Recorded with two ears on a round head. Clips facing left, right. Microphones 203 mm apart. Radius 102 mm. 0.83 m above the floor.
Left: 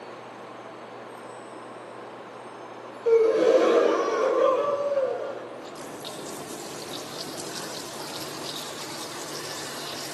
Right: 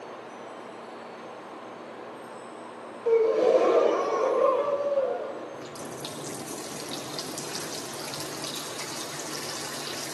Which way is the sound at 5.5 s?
35° right (ahead or behind).